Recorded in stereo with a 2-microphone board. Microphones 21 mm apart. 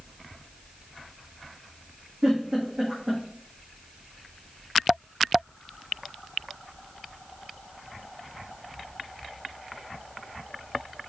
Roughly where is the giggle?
Right.